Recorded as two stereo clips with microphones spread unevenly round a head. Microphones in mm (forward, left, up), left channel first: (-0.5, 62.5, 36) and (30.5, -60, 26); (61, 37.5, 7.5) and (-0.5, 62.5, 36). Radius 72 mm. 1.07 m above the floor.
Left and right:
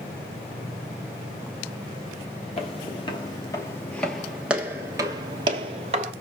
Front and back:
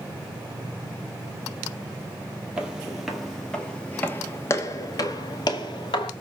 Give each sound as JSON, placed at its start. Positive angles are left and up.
{"t": 2.6, "sound": "footsteps", "azimuth_deg": 120, "distance_m": 1.4}